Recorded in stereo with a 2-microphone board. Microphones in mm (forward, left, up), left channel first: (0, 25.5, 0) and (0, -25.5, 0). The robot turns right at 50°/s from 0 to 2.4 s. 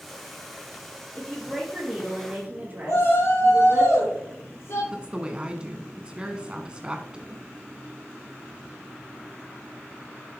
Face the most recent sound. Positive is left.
turn(degrees=-20)  # may be behind; listen again after turning